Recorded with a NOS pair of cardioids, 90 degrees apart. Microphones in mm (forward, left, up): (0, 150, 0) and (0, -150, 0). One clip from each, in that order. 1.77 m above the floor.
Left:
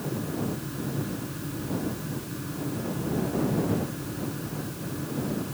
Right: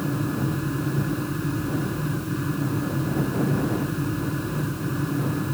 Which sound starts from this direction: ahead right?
A fan, at 0.0 s.